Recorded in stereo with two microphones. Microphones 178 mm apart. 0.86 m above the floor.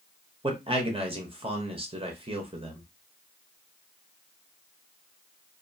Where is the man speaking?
30° right (ahead or behind), 0.8 m.